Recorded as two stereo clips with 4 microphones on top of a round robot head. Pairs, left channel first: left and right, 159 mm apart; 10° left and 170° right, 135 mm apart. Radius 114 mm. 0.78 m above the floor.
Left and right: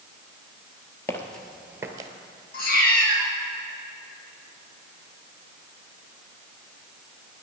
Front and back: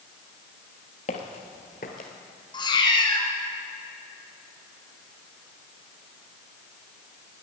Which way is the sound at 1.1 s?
20° left.